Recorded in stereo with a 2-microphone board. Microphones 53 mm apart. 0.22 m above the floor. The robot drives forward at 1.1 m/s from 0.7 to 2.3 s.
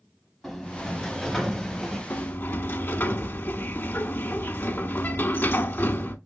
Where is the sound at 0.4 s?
Centre (ahead or behind), 1.7 m; by 2.0 s 5° left (ahead or behind), 1.5 m.